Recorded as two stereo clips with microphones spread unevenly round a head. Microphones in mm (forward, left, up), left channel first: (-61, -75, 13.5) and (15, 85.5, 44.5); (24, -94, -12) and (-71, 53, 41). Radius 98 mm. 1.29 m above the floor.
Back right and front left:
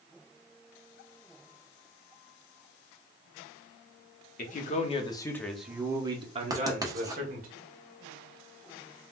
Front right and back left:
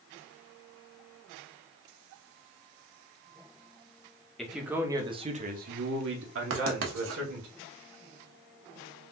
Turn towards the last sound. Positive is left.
turn(degrees=140)